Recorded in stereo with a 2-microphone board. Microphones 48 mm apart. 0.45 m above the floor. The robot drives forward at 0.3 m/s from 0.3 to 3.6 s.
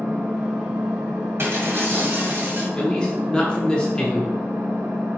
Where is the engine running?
70° right (ahead or behind), 1.9 m; by 5.2 s 75° right (ahead or behind), 1.8 m.